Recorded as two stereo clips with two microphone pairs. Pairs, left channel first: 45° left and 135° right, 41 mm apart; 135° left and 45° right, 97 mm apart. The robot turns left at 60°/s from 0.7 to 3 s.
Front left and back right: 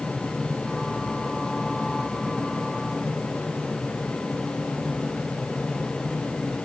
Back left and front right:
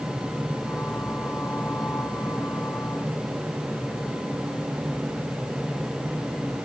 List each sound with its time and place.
Only background noise.